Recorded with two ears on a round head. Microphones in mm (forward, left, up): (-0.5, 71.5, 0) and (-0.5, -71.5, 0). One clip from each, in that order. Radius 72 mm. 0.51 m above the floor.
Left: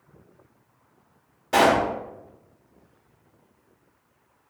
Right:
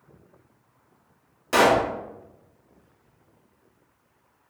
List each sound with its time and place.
1.5 s a pop: 40° right (ahead or behind), 1.2 m